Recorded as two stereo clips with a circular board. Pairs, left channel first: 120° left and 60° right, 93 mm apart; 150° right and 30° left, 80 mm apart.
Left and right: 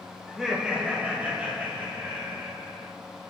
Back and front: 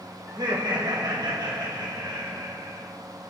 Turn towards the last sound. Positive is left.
turn(degrees=-5)